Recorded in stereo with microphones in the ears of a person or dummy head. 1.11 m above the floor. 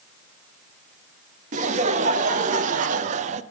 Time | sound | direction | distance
1.5 | laughter | 45° right (ahead or behind) | 1.6 m